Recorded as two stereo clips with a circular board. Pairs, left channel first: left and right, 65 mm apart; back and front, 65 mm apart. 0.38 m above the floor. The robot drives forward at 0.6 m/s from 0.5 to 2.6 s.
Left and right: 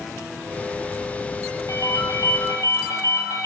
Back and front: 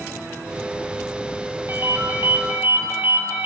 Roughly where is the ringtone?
Ahead left.